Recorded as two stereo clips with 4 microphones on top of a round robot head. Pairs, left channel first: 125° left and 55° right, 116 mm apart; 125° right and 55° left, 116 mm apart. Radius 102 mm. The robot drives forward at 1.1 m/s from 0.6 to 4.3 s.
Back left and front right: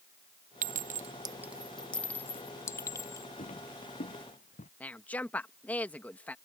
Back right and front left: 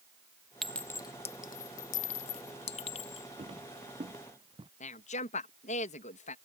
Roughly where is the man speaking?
Behind right.